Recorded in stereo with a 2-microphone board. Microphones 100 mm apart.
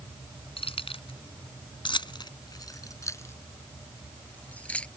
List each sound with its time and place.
0.6 s keys jangling: 70° left (ahead or behind); by 4.9 s 10° left (ahead or behind)